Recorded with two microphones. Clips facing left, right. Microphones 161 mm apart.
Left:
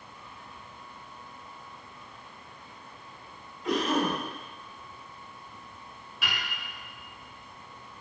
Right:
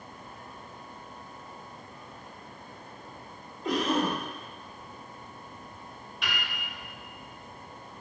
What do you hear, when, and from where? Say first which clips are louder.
3.6 s a cough: even; 40° right (ahead or behind), 1.8 m
6.2 s a piano: even; 5° left (ahead or behind), 0.6 m